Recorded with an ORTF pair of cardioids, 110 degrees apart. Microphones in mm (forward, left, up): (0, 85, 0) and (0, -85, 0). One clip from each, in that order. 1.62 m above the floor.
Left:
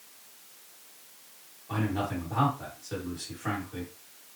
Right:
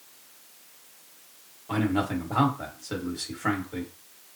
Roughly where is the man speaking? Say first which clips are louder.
Right 4 dB; ahead right.